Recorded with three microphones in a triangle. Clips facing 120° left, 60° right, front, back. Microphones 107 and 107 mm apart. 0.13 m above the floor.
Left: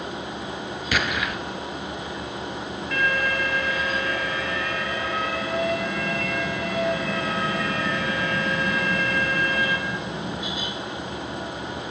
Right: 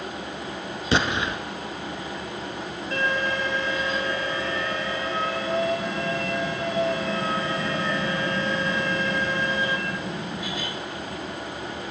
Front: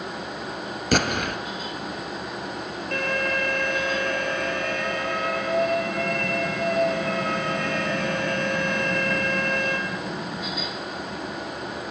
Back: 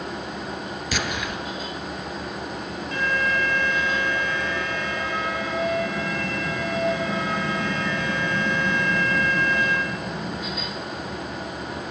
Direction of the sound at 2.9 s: 5° right.